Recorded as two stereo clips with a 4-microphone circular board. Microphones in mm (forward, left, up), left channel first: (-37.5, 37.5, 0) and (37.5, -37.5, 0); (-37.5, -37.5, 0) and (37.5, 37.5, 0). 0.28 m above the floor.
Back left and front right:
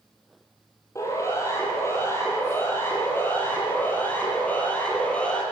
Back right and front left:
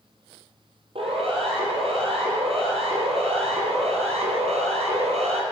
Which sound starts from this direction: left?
A siren, at 0.9 s.